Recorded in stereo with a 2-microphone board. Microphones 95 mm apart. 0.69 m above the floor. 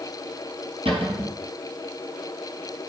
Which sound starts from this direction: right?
A cupboard door, at 0.8 s.